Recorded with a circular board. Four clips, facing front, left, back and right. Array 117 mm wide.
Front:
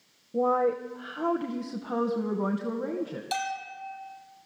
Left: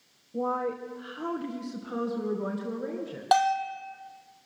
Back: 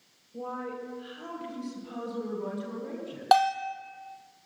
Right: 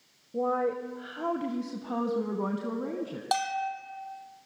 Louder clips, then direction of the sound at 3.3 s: Left 7 dB, back 14 dB; 165° left.